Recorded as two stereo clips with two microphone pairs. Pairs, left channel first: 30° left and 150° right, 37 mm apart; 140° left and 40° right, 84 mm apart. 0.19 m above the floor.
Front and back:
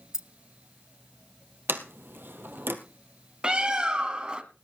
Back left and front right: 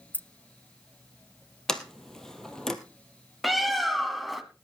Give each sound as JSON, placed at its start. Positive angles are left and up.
{"t": 0.1, "sound": "keys jangling", "azimuth_deg": 160, "distance_m": 0.7}
{"t": 1.7, "sound": "a sliding door", "azimuth_deg": -130, "distance_m": 1.8}
{"t": 3.4, "sound": "a bird", "azimuth_deg": -125, "distance_m": 1.5}